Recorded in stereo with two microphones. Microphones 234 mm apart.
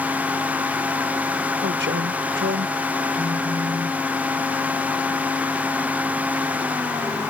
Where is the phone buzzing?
40° right (ahead or behind).